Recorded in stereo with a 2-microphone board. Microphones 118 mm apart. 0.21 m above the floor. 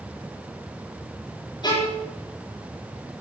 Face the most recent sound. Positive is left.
turn(degrees=35)  # may be behind; listen again after turning